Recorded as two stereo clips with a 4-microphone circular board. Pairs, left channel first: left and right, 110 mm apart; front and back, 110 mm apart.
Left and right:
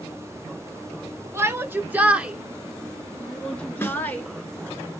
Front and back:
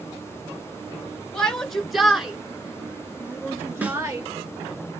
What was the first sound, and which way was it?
A shout, 75° right.